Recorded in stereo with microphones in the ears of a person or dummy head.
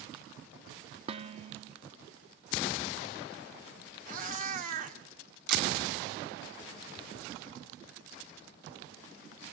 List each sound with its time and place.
1.1 s dishes clattering: 40° right (ahead or behind), 1.4 m
4.1 s a cat meowing: 45° right (ahead or behind), 1.9 m
5.5 s a camera shutter: 55° right (ahead or behind), 2 m